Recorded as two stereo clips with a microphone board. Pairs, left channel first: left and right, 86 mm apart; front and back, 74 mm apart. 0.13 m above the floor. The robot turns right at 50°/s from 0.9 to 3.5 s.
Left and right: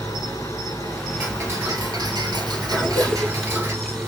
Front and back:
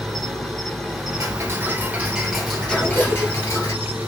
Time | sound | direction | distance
0.0 | an insect | 90° left | 1.3 m
1.2 | ticking | 150° right | 1.6 m
2.7 | a cough | 140° left | 1.2 m